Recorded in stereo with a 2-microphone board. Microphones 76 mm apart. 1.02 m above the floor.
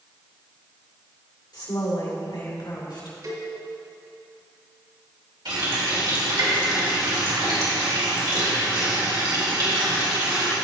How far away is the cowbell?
About 1.7 m.